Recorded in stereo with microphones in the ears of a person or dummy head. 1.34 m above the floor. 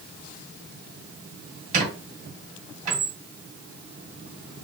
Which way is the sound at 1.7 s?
50° right (ahead or behind).